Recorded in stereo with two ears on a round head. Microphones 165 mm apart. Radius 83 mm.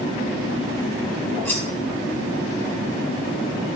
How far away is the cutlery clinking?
About 2 m.